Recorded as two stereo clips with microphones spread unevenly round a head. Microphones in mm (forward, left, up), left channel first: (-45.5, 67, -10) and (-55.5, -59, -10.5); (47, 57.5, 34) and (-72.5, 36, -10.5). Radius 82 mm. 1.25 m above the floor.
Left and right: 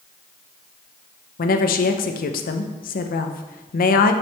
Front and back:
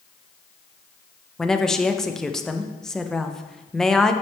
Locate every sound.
1.4 s a woman speaking: 95° left, 0.7 m